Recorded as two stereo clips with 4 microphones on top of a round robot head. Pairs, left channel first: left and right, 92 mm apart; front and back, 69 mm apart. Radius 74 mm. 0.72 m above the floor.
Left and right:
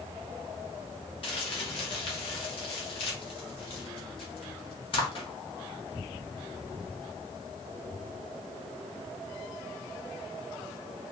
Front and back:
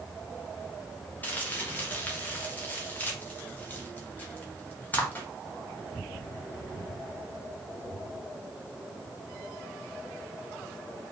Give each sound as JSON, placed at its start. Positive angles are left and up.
{"t": 1.2, "sound": "crumpling", "azimuth_deg": 60, "distance_m": 1.4}